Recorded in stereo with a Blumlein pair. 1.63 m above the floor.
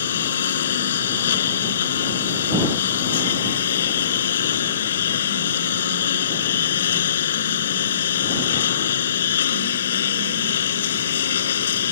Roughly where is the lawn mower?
Ahead left.